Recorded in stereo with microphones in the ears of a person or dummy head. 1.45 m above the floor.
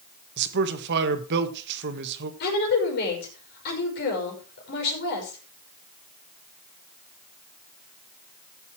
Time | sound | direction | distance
0.4 | a man speaking | 60° right (ahead or behind) | 1.6 m
2.4 | a woman speaking | 55° left (ahead or behind) | 5.5 m